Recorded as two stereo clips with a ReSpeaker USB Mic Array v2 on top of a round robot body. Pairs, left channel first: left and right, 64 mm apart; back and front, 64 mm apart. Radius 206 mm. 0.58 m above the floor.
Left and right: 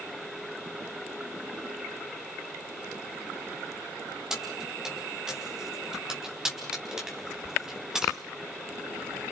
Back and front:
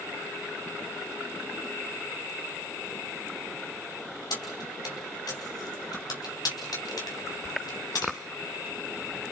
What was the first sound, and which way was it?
Keys jangling, 170° right.